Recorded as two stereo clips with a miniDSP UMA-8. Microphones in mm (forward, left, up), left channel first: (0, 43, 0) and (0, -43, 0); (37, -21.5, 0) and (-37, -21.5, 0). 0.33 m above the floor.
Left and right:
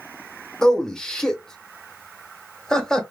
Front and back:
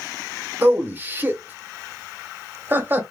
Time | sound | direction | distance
0.6 | a man speaking | 165° left | 0.9 m